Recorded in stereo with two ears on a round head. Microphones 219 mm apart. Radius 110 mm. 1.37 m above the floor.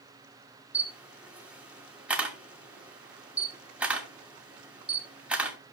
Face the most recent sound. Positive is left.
turn(degrees=-5)  # may be behind; listen again after turning